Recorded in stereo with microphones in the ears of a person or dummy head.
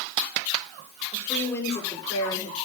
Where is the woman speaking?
15° left (ahead or behind), 6 m; by 2.5 s 20° left (ahead or behind), 5 m.